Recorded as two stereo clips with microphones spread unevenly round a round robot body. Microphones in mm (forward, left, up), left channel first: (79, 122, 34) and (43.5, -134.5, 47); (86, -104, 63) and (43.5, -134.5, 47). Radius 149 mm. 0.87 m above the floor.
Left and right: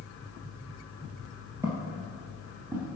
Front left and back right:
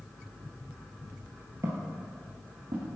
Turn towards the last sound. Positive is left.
turn(degrees=180)